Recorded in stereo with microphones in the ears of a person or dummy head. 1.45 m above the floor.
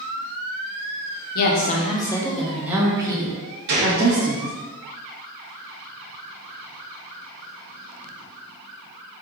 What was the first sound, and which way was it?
A woman speaking, 55° left (ahead or behind).